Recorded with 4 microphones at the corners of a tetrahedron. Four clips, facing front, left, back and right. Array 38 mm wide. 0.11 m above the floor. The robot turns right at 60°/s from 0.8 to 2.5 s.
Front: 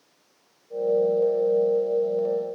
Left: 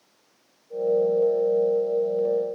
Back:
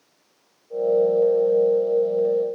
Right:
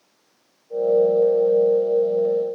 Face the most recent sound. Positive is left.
No sound to turn to.